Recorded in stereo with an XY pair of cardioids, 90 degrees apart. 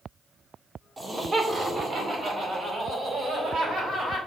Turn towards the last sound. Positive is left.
turn(degrees=-60)